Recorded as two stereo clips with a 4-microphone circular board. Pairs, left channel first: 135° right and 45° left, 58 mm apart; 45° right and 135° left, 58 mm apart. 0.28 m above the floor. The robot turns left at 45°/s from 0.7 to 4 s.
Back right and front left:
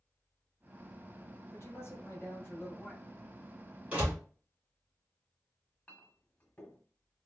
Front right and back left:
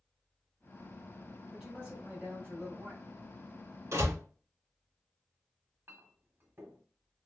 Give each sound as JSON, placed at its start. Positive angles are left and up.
{"t": 1.5, "sound": "a man speaking", "azimuth_deg": -140, "distance_m": 2.5}
{"t": 3.9, "sound": "a door slam", "azimuth_deg": 115, "distance_m": 2.0}
{"t": 5.9, "sound": "a clink", "azimuth_deg": 170, "distance_m": 1.1}